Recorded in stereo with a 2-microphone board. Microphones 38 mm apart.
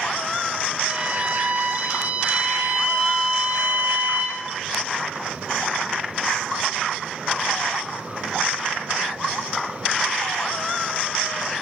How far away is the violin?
About 8 m.